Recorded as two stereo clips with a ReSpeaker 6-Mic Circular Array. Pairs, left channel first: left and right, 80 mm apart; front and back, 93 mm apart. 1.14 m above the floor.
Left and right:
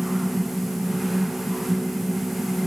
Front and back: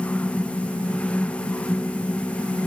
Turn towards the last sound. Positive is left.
No sound to turn to.